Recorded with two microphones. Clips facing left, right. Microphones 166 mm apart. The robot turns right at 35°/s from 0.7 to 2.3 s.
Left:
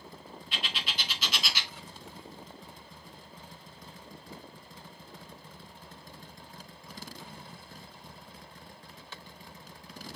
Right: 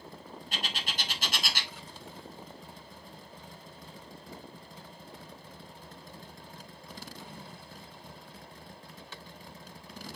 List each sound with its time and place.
0.5 s a bird: 45° right (ahead or behind), 0.5 m; by 1.7 s 50° right (ahead or behind), 0.5 m